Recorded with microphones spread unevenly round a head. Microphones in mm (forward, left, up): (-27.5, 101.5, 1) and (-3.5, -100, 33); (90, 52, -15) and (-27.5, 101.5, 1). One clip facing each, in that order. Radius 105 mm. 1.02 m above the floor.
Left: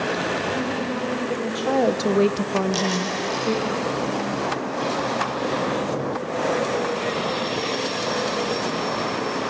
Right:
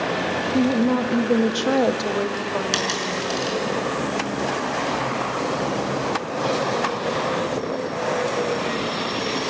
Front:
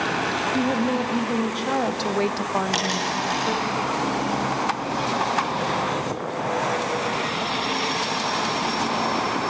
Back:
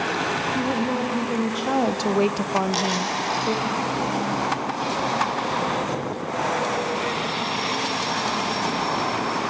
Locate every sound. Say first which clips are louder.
0.5 s a woman speaking: right 7 dB, front 3 dB; 100° right, 1.6 m; by 3.7 s 80° left, 2.5 m
2.7 s a dropped coin: left 2 dB, back 1 dB; 80° right, 5.5 m